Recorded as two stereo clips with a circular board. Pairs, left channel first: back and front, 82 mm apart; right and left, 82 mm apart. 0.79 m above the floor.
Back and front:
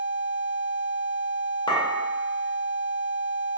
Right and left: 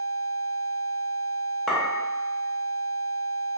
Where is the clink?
Straight behind, 0.8 m.